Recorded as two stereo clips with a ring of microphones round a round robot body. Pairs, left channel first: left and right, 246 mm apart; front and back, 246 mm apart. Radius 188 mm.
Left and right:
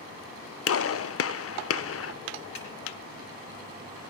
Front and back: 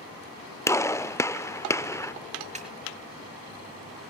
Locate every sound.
0.7 s a gunshot: 80° left, 0.7 m
2.5 s a snare drum: 120° left, 4.5 m